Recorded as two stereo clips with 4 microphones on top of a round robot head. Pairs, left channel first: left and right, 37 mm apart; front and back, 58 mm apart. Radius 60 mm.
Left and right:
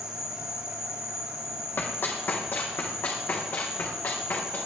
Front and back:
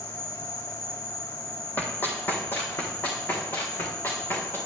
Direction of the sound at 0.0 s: 20° right.